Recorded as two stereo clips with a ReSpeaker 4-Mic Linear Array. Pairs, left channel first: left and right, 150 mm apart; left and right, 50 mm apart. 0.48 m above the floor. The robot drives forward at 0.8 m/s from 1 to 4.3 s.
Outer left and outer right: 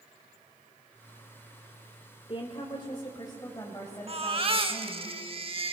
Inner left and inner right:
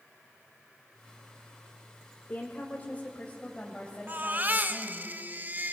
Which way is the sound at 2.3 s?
35° left (ahead or behind).